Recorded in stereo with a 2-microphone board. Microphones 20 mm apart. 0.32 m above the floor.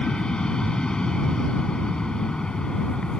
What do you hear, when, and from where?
0.0 s an aircraft: 45° left (ahead or behind)